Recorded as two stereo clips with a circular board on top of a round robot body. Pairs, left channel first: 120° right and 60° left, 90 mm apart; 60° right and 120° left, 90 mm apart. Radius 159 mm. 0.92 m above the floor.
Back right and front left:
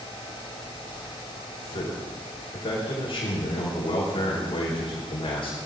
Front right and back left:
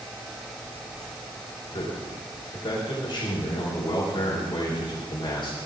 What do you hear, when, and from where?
1.7 s a man speaking: 95° right, 5 m